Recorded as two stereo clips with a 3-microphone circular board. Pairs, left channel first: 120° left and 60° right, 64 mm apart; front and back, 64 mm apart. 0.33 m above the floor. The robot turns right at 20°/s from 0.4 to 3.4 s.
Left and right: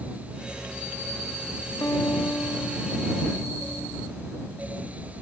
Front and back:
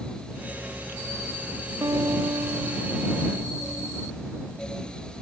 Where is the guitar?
160° left; by 4.1 s 170° right.